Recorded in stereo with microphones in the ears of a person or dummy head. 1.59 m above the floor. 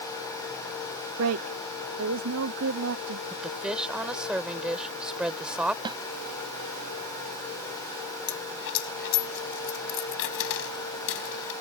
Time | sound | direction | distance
1.2 | a woman speaking | 80° right | ?
3.3 | a woman speaking | 5° right (ahead or behind) | ?
5.8 | a snare drum | 25° right (ahead or behind) | ?
8.3 | a dropped coin | 65° left (ahead or behind) | ?